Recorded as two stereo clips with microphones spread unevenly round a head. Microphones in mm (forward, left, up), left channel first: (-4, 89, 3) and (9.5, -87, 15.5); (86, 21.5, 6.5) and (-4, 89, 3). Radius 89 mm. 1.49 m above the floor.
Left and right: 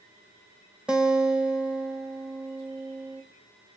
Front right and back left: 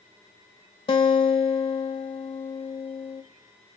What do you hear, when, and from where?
0.9 s a guitar: straight ahead, 1.8 m